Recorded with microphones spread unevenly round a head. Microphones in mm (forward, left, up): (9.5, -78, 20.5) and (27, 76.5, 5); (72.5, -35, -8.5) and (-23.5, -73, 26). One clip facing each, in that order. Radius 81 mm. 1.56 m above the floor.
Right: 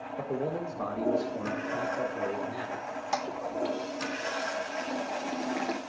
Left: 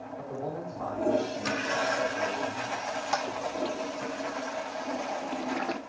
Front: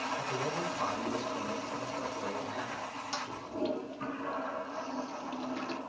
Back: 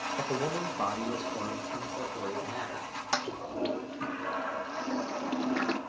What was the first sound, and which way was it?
A man speaking, 140° right.